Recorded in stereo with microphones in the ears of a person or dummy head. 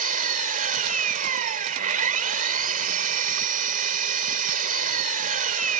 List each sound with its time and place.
0.0 s an engine running: 45° right (ahead or behind)